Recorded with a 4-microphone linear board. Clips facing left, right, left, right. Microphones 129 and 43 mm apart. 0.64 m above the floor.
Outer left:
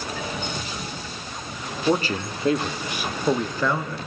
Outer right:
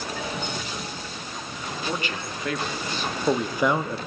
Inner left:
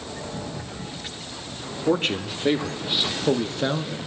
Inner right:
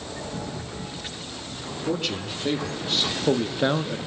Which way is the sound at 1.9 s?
40° left (ahead or behind).